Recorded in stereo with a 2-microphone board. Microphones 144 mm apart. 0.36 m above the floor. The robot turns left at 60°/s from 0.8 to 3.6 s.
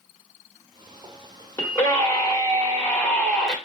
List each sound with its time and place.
1.6 s a scream: 20° left (ahead or behind), 1.4 m; by 3.5 s centre (ahead or behind), 1.4 m